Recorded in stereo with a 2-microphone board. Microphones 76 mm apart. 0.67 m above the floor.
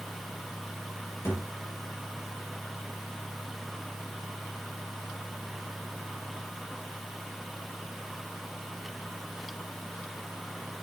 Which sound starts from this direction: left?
A thud, at 1.2 s.